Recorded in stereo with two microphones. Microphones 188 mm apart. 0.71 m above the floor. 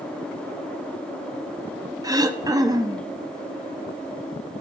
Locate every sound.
2.0 s throat clearing: 20° right (ahead or behind), 0.7 m